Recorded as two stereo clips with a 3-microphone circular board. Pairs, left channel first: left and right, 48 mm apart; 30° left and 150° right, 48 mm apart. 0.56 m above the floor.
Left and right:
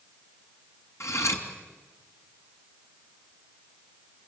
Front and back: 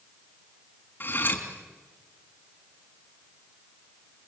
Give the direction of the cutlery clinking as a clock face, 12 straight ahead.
9 o'clock.